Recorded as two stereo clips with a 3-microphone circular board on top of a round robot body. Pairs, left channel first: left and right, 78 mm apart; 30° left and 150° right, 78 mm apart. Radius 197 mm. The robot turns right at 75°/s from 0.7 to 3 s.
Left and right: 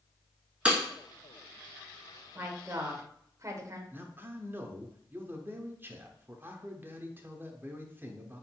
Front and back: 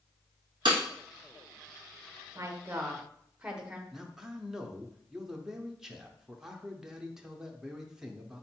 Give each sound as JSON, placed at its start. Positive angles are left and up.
{"t": 0.7, "sound": "breaking glass", "azimuth_deg": -165, "distance_m": 1.2}
{"t": 2.4, "sound": "a woman speaking", "azimuth_deg": -125, "distance_m": 1.3}
{"t": 3.9, "sound": "a man speaking", "azimuth_deg": -75, "distance_m": 1.0}